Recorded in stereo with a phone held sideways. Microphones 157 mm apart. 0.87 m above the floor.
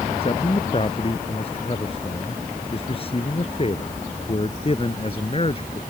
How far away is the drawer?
I don't hear a drawer.